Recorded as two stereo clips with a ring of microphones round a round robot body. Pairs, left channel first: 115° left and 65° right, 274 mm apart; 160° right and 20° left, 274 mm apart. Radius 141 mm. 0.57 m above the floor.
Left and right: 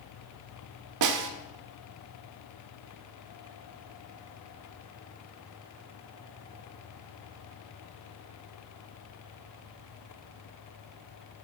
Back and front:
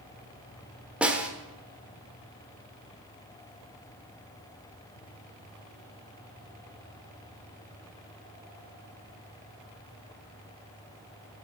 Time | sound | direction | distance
1.0 | a snare drum | 65° right | 1.0 m